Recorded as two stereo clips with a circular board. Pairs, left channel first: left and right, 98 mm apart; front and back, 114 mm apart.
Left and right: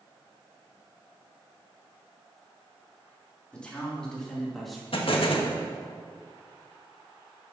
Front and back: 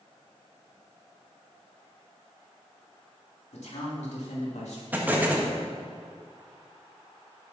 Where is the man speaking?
10° left, 3.5 m; by 4.8 s straight ahead, 2.5 m.